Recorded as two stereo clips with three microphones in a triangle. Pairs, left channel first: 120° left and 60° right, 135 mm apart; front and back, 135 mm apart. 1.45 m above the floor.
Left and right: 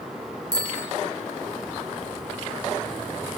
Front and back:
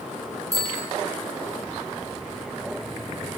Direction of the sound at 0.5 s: 145° left.